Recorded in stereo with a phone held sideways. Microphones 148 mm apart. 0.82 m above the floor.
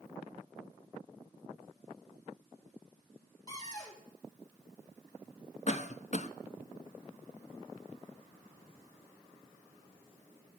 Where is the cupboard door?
25° left (ahead or behind), 2.5 m.